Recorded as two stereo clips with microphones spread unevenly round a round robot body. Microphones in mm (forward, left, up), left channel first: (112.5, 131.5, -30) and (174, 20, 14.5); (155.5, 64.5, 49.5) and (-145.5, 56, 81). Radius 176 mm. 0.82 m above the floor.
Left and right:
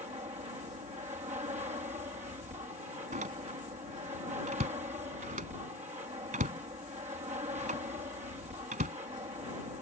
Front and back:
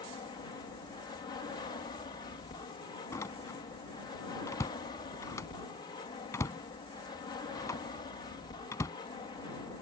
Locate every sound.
0.0 s an aircraft: 60° right
3.1 s a door slam: 80° right